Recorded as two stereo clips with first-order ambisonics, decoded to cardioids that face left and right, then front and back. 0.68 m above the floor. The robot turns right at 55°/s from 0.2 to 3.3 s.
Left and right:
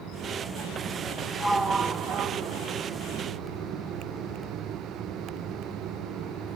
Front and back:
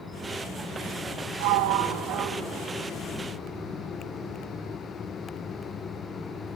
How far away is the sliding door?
About 4 m.